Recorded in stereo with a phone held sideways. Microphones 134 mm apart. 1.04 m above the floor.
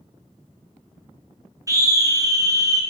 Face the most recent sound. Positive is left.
turn(degrees=-25)  # may be behind; listen again after turning